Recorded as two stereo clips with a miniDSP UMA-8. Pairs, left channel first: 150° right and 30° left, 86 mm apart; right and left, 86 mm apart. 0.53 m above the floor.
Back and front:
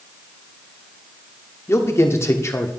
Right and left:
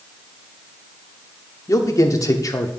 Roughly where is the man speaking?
Right.